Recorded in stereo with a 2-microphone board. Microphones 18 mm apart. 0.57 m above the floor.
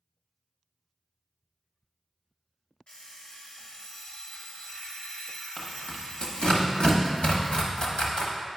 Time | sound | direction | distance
2.9 | an alarm clock | 60° left (ahead or behind) | 1.7 m
5.6 | tearing paper | 65° left (ahead or behind) | 1.2 m